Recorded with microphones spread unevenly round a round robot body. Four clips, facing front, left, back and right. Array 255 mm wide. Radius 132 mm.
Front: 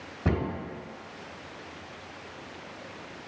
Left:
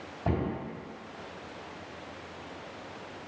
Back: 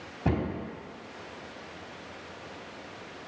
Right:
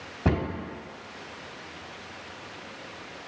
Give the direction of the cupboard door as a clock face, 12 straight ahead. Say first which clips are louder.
Right 4 dB, even; 2 o'clock.